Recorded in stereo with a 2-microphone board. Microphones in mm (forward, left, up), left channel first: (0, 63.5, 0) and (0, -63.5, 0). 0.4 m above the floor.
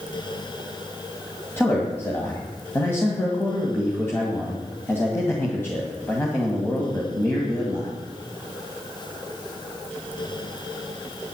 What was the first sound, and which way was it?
A man speaking, 20° left (ahead or behind).